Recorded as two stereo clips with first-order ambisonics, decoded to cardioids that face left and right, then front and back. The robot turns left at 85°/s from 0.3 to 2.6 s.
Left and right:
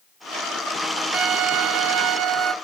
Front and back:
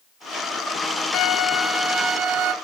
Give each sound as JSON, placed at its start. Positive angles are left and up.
{"t": 1.1, "sound": "a violin", "azimuth_deg": -50, "distance_m": 1.9}